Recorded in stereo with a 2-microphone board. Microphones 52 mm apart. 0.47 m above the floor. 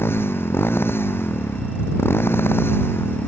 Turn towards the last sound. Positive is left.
turn(degrees=45)  # may be behind; listen again after turning